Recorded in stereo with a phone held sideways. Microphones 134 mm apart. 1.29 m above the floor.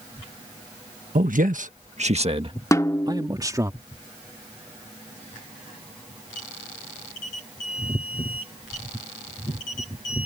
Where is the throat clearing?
I don't hear throat clearing.